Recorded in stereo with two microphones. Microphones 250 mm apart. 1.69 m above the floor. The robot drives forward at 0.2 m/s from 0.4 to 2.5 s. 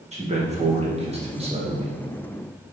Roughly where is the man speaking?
Right.